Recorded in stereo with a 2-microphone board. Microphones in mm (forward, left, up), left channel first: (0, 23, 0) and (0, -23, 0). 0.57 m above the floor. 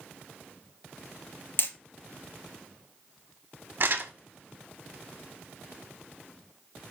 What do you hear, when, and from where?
1.6 s hammering: 50° left (ahead or behind), 0.8 m
3.8 s crumpling: 50° right (ahead or behind), 0.7 m